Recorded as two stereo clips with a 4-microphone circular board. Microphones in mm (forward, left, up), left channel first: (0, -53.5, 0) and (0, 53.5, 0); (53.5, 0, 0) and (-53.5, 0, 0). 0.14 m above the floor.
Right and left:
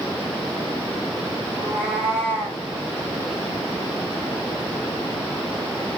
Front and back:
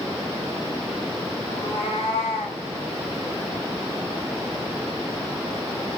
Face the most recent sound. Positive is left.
turn(degrees=15)